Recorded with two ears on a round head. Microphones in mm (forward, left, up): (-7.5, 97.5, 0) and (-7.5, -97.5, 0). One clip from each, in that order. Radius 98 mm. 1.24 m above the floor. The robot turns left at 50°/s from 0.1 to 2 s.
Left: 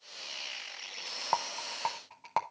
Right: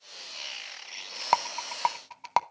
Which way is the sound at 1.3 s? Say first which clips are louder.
Right 7 dB; 75° right (ahead or behind).